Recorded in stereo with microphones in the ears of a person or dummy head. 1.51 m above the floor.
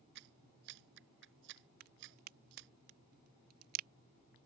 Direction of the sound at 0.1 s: 65° right (ahead or behind).